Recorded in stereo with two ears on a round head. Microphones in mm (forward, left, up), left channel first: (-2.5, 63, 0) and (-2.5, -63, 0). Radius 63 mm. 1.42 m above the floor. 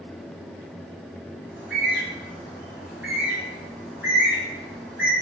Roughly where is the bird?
Centre.